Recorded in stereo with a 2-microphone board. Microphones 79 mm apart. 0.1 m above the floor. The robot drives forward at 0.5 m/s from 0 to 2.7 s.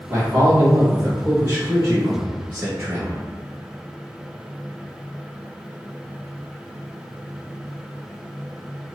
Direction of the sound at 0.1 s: 20° right (ahead or behind).